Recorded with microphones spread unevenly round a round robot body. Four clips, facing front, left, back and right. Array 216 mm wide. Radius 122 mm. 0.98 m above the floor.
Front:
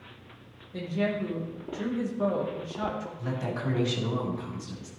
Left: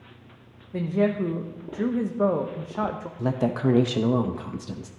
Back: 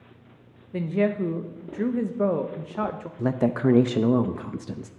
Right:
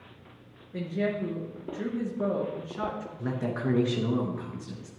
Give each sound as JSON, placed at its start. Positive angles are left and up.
{"t": 0.7, "sound": "a woman speaking", "azimuth_deg": 140, "distance_m": 0.9}
{"t": 3.2, "sound": "a woman speaking", "azimuth_deg": 155, "distance_m": 0.7}